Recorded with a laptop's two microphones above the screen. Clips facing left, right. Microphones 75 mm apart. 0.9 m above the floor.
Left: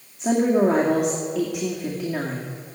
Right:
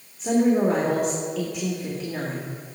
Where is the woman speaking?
70° left (ahead or behind), 2 m.